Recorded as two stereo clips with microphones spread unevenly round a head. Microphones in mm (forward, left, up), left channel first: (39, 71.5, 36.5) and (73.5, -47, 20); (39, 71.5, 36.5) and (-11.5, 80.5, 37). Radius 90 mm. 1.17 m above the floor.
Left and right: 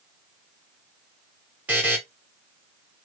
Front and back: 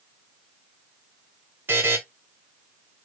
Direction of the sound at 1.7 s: 145° right.